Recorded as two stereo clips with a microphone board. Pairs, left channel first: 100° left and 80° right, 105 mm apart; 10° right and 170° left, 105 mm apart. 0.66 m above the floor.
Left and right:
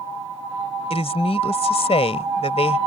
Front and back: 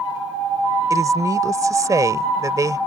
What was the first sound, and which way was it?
A woman speaking, 115° left.